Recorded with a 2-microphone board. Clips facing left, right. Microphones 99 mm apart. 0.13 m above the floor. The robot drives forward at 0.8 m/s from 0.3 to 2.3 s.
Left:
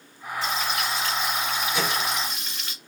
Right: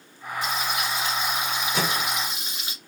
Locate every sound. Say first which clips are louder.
0.4 s frying: even; 15° right (ahead or behind), 1.8 m
1.7 s a microwave: right 1 dB; 40° right (ahead or behind), 1.4 m; by 2.1 s 35° right (ahead or behind), 1.6 m